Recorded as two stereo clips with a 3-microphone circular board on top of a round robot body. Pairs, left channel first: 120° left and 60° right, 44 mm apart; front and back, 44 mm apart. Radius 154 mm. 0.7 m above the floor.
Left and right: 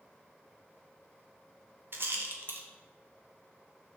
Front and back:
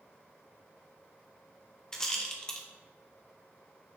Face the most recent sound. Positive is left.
turn(degrees=-75)